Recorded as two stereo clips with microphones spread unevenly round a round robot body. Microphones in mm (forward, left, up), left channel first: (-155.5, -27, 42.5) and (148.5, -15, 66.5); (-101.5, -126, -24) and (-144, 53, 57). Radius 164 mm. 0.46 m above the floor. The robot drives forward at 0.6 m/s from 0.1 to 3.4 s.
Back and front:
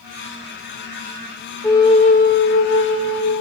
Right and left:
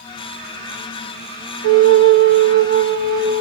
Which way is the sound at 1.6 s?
100° left.